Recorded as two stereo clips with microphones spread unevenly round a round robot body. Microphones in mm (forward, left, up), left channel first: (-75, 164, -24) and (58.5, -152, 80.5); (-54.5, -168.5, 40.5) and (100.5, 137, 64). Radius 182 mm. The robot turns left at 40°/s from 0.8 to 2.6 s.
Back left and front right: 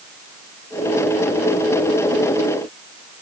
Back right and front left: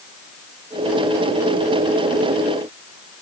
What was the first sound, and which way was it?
Only background noise.